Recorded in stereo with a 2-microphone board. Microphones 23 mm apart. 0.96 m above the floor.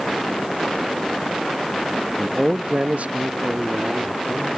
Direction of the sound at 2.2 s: Centre (ahead or behind).